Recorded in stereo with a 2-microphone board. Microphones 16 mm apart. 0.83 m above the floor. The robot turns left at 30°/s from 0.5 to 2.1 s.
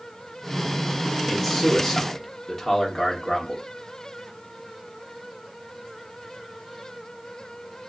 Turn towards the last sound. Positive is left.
turn(degrees=10)  # may be behind; listen again after turning